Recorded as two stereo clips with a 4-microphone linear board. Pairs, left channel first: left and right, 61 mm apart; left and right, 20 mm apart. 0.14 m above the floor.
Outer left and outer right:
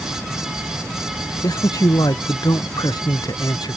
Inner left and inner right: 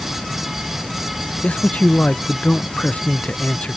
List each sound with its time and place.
1.4 s a man speaking: 80° left; by 3.8 s 85° left